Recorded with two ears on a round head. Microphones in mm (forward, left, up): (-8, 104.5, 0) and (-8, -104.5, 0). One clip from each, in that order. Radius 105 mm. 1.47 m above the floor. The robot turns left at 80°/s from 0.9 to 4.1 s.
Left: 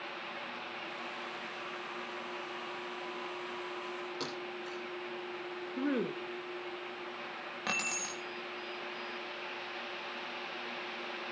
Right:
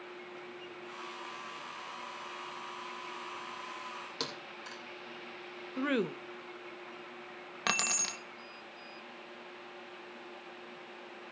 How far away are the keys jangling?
About 1.2 m.